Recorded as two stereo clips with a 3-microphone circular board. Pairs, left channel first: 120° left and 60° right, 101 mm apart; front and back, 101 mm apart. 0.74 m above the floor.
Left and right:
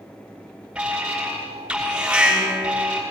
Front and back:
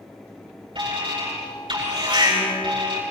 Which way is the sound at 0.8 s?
140° right.